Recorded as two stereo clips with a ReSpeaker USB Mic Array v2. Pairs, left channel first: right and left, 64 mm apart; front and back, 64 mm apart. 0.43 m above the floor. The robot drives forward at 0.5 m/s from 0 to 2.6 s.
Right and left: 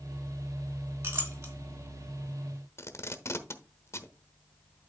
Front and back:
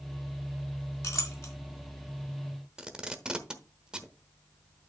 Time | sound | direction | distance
1.0 | a clink | 40° left | 3.5 m
2.8 | tape being pulled | 105° right | 1.0 m